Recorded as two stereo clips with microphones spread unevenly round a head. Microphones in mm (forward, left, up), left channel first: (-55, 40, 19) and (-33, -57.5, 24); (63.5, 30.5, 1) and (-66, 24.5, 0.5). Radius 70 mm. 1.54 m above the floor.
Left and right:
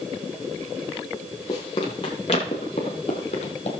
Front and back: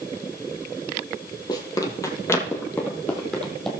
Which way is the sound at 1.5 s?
50° left.